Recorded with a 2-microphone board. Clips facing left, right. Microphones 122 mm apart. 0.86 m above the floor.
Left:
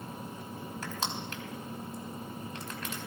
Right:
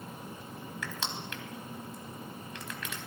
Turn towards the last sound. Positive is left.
turn(degrees=35)  # may be behind; listen again after turning